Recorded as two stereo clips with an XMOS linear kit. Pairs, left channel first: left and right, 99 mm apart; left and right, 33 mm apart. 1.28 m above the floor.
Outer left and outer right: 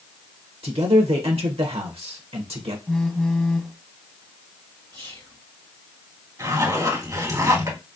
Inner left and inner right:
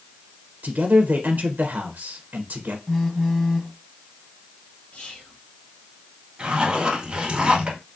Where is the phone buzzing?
5° left (ahead or behind), 0.7 m.